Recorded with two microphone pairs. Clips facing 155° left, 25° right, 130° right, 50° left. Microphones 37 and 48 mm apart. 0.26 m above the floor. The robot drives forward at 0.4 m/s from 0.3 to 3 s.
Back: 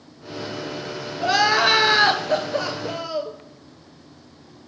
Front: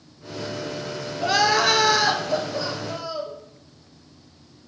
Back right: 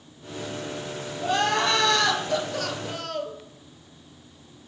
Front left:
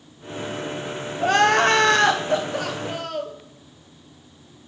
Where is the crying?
70° left, 0.6 m; by 3.4 s 135° left, 0.7 m.